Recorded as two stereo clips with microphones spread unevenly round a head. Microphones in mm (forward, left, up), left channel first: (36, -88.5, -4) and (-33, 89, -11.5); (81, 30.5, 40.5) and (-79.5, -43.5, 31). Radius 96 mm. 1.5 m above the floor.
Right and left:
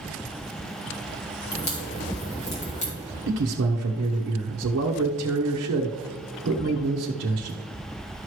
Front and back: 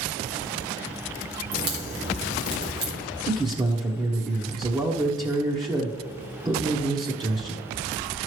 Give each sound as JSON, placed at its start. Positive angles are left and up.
{"t": 1.5, "sound": "a crack", "azimuth_deg": -125, "distance_m": 2.5}
{"t": 3.3, "sound": "a man speaking", "azimuth_deg": 135, "distance_m": 0.9}